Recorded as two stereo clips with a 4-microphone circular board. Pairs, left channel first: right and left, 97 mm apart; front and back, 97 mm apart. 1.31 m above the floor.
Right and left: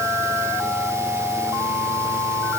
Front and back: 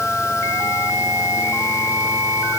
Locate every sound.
Only background noise.